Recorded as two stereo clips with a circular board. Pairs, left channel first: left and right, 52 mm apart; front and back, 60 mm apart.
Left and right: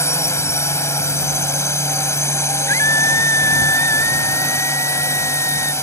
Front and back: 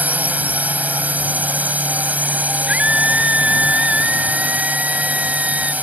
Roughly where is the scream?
Left.